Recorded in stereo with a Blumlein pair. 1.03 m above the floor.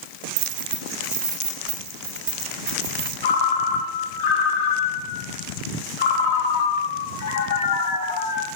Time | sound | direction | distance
0.4 | keys jangling | 55° right | 0.5 m
3.2 | a ringtone | 55° left | 0.8 m